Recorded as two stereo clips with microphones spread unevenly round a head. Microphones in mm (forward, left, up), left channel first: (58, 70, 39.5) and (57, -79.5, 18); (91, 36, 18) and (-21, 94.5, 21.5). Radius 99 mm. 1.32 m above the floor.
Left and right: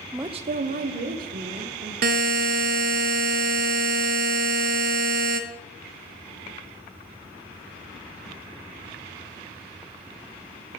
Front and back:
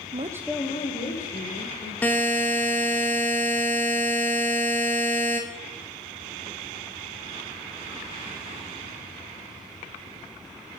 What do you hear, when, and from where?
0.1 s a woman speaking: 170° right, 0.6 m; by 1.9 s 60° right, 2 m
2.0 s a buzzer: 110° right, 0.6 m